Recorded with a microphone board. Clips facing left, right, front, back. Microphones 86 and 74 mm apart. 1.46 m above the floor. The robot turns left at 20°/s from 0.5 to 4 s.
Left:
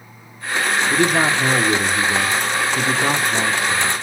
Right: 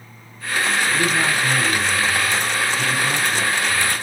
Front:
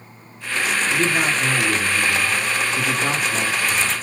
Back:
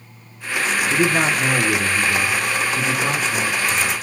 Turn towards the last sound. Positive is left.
turn(degrees=65)